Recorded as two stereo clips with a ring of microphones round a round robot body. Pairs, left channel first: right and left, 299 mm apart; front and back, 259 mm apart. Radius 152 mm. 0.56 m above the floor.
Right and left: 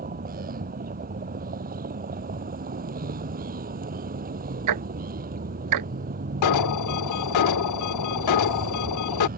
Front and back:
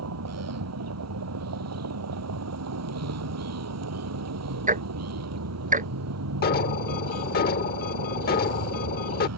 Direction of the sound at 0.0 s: 155° left.